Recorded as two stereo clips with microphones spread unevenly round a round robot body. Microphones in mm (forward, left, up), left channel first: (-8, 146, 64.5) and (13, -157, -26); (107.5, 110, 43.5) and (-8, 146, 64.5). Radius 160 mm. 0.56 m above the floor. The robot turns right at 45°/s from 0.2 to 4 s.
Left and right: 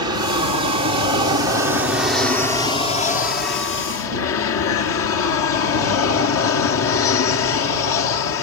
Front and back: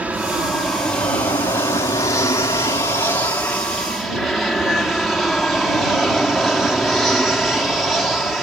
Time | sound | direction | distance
0.0 | an aircraft | 110° right | ?